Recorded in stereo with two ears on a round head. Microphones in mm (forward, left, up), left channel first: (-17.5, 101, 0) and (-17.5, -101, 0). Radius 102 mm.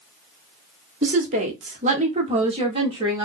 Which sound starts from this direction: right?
A woman speaking, at 1.0 s.